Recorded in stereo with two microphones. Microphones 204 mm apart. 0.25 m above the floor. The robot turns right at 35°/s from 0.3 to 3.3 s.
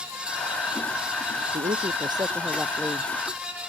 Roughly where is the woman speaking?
Ahead right.